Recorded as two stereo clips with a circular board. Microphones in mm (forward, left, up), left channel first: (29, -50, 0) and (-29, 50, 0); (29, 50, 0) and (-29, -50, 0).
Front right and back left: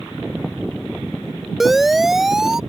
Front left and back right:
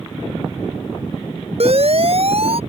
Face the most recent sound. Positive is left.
turn(degrees=-155)